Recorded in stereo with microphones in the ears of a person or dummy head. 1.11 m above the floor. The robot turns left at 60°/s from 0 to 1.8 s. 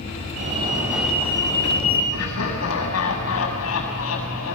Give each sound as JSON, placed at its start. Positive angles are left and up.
{"t": 0.4, "sound": "a fire alarm", "azimuth_deg": -135, "distance_m": 5.0}
{"t": 2.1, "sound": "laughter", "side_deg": 90, "distance_m": 7.5}